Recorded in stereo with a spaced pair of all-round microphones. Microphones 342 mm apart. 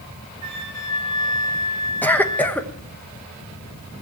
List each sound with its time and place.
0.4 s a flute: 55° left (ahead or behind), 2.5 m
2.0 s a cough: 5° left (ahead or behind), 1.1 m